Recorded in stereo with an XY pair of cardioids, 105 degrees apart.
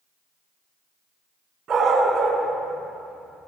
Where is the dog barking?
55° right, 3.5 m; by 3.5 s 35° right, 4 m.